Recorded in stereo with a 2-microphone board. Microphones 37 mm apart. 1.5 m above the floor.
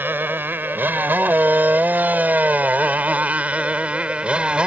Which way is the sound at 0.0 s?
70° right (ahead or behind).